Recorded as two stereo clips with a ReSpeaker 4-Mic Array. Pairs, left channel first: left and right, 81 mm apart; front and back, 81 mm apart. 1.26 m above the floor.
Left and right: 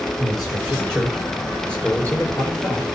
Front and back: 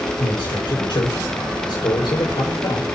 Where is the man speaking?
Straight ahead, 6.5 m; by 2.8 s 25° left, 7 m.